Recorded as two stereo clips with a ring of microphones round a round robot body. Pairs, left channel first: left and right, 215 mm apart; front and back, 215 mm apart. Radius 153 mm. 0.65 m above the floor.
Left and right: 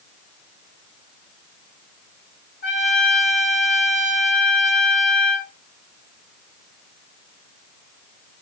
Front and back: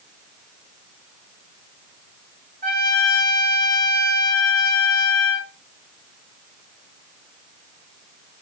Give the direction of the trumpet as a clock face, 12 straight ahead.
7 o'clock.